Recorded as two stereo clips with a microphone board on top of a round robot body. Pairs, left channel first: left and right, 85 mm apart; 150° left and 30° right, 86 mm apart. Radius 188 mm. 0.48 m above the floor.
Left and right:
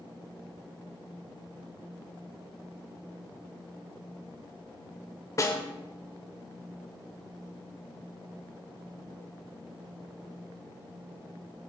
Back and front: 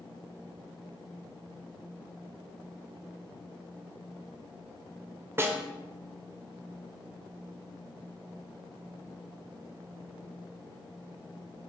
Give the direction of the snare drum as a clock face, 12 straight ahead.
11 o'clock.